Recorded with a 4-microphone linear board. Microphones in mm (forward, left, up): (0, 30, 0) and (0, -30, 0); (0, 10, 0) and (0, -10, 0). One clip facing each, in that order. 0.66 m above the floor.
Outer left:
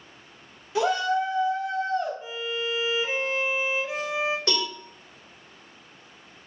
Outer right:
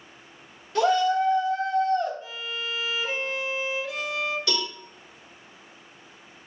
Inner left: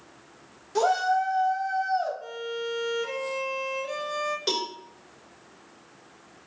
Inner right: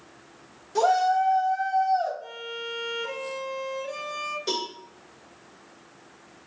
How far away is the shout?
About 0.9 m.